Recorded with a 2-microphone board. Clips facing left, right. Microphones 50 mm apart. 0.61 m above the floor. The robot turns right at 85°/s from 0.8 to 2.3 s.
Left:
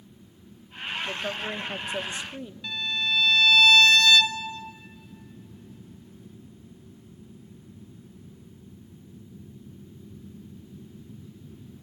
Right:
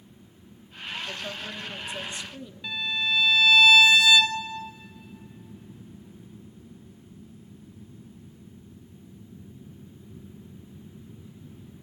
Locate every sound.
1.1 s a woman speaking: 35° left, 0.7 m; by 2.5 s 140° left, 0.7 m
2.6 s a violin: 10° right (ahead or behind), 0.7 m